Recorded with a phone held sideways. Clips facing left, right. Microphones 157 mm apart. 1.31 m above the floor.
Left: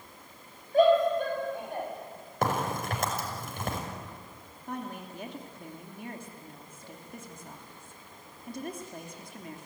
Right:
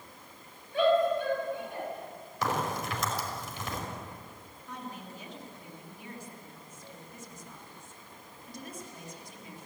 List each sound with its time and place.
0.7 s a shout: 40° left (ahead or behind), 8 m; by 1.9 s 50° left (ahead or behind), 9 m
2.4 s a crack: 55° left (ahead or behind), 5.5 m
4.7 s a woman speaking: 55° left (ahead or behind), 2.5 m